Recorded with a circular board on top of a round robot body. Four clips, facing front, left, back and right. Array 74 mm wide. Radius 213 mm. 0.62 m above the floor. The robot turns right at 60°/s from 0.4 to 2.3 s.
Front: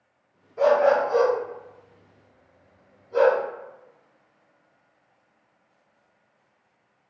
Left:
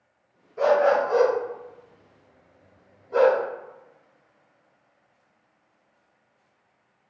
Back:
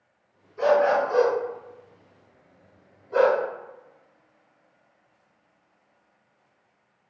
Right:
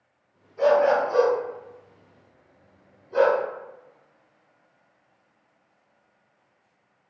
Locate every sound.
0.6 s a dog barking: 45° left, 1.2 m; by 3.4 s 150° left, 1.2 m